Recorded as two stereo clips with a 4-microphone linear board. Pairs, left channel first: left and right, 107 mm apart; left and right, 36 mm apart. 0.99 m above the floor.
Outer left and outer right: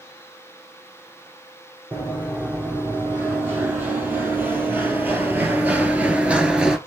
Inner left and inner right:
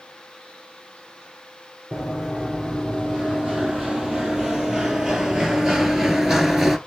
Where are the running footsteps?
20° right (ahead or behind), 2.5 m; by 6.8 s 5° right (ahead or behind), 0.9 m.